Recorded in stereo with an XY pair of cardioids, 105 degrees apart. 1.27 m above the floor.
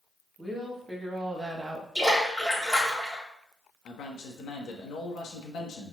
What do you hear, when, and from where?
0.4 s a woman speaking: straight ahead, 2 m; by 1.9 s 25° right, 1.2 m
1.9 s a splash: 5° right, 2.5 m
3.9 s a man speaking: 65° left, 1.2 m